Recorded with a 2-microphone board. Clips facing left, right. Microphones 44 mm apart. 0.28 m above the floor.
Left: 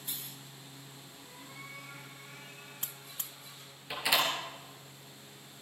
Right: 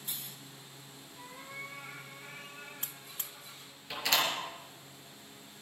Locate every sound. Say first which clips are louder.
1.2 s a cat meowing: right 6 dB; 75° right (ahead or behind), 6 m; by 3.7 s 60° right (ahead or behind), 6 m
3.9 s a door slam: left 1 dB; 10° left (ahead or behind), 4 m